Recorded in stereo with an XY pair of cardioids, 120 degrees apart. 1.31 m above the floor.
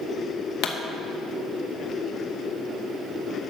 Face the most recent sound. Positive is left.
turn(degrees=70)